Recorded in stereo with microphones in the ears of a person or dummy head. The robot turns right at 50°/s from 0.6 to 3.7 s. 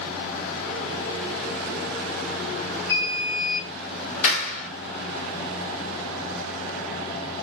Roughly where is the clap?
Left.